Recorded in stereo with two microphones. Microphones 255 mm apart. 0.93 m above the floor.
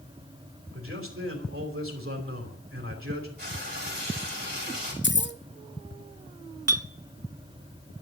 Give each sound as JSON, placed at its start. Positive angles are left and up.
{"t": 0.7, "sound": "a man speaking", "side_deg": -55, "distance_m": 3.0}
{"t": 3.4, "sound": "frying", "side_deg": -40, "distance_m": 5.5}
{"t": 5.0, "sound": "keys jangling", "side_deg": 45, "distance_m": 0.7}
{"t": 6.7, "sound": "a clink", "side_deg": -70, "distance_m": 0.6}